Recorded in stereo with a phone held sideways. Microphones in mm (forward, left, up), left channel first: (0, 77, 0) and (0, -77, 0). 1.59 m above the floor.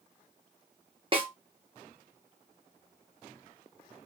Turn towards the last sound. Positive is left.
turn(degrees=-35)  # may be behind; listen again after turning